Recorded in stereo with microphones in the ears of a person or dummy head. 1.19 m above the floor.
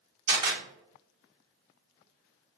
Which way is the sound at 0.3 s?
30° right (ahead or behind).